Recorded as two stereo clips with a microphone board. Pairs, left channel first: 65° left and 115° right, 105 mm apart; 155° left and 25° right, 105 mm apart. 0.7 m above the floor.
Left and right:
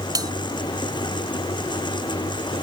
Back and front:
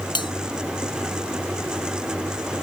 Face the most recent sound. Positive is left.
turn(degrees=-165)